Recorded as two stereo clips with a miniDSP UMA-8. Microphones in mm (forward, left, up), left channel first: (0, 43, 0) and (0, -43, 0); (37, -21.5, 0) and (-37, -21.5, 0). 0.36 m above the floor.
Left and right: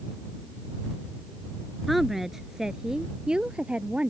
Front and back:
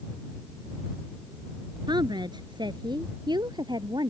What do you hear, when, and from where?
1.9 s a woman speaking: straight behind; by 4.1 s 165° right